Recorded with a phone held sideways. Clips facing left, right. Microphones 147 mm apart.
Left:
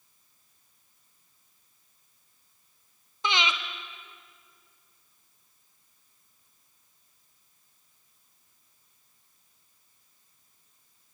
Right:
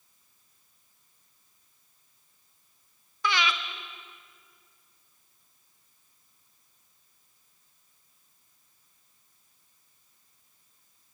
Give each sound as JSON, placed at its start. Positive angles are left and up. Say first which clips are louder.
{"t": 3.2, "sound": "breathing", "louder": "right 1 dB", "side_deg": 20, "distance_m": 1.3}